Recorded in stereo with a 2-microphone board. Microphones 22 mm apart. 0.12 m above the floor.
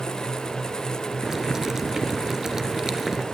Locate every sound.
1.2 s boiling: 20° right (ahead or behind), 1.2 m